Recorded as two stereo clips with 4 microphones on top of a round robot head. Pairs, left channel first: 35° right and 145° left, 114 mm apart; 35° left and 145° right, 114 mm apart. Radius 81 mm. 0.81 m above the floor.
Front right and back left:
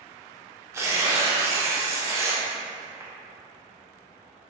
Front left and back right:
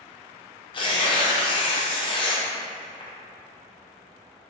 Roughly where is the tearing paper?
Left.